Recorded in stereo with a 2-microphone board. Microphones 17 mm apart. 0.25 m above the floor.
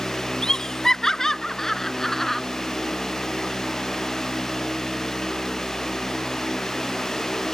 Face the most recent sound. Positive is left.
turn(degrees=20)  # may be behind; listen again after turning